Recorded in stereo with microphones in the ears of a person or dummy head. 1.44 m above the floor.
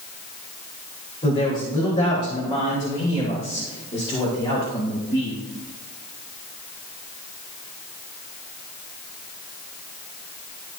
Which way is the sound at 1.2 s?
30° left (ahead or behind).